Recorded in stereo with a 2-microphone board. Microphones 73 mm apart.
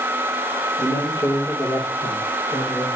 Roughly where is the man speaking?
Left.